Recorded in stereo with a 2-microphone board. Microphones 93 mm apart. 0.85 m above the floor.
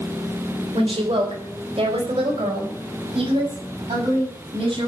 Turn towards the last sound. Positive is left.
turn(degrees=-75)  # may be behind; listen again after turning